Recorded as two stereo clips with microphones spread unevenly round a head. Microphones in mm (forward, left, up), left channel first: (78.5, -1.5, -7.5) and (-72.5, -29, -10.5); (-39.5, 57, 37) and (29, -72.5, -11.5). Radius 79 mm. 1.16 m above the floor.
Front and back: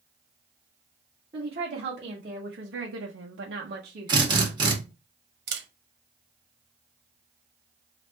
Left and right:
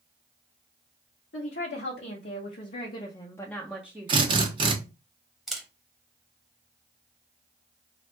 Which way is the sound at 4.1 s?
110° right.